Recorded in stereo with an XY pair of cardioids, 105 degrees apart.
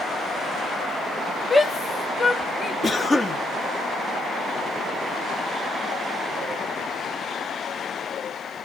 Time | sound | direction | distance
1.5 | a shout | 10° left | 1.2 m
2.8 | a cough | 20° left | 2 m